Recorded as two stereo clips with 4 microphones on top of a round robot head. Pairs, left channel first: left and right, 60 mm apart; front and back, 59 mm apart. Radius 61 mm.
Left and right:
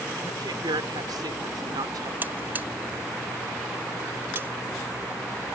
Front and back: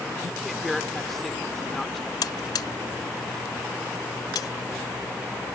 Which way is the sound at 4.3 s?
25° right.